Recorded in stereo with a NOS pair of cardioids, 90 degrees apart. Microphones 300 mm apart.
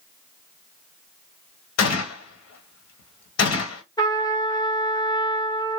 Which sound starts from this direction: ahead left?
A gunshot, at 1.8 s.